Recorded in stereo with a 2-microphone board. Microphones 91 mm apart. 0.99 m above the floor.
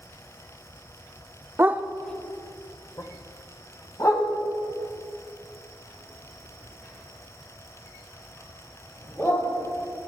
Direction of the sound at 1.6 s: 25° right (ahead or behind).